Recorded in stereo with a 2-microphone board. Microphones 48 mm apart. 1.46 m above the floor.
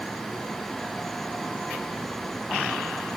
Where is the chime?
I don't hear a chime.